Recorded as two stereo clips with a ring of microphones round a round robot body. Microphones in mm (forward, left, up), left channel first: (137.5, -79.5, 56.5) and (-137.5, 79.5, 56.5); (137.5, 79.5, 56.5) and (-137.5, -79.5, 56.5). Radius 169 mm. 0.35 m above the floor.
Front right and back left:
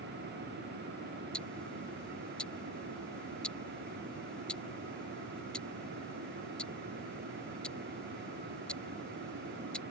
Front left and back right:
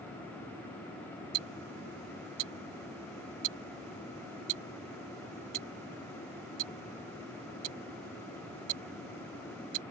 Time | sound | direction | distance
1.3 | ticking | 120° right | ?